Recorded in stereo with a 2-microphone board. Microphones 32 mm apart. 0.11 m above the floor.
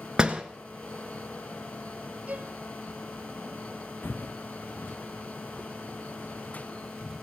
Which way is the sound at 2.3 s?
50° right (ahead or behind).